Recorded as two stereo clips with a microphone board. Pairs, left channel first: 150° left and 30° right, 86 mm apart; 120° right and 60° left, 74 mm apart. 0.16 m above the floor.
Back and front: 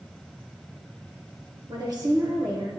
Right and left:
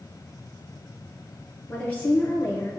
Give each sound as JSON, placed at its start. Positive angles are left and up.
{"t": 1.7, "sound": "a woman speaking", "azimuth_deg": -50, "distance_m": 2.0}